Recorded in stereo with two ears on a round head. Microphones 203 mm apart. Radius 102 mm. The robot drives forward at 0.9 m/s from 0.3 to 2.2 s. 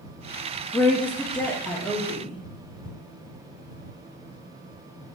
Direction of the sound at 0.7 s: 10° left (ahead or behind).